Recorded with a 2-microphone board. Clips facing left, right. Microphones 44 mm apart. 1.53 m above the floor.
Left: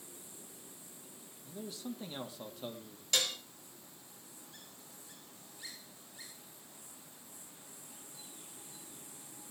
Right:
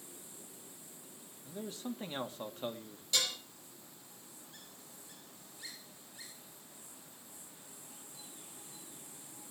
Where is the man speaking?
45° right (ahead or behind), 2.5 m.